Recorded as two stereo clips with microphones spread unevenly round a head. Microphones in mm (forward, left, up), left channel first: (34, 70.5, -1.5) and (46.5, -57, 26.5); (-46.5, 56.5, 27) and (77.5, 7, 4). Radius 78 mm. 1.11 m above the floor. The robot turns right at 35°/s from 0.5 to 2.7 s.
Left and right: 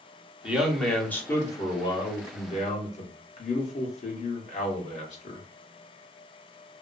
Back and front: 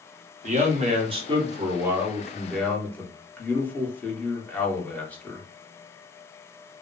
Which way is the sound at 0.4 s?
Straight ahead.